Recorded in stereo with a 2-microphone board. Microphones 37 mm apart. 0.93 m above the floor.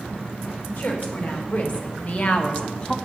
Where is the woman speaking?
60° left (ahead or behind), 3 m; by 3.0 s 25° left (ahead or behind), 0.9 m.